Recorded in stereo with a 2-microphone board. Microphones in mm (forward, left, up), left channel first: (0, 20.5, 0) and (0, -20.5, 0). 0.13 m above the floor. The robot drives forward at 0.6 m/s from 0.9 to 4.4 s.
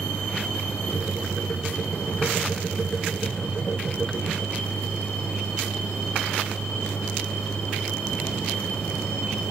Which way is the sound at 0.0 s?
45° left (ahead or behind).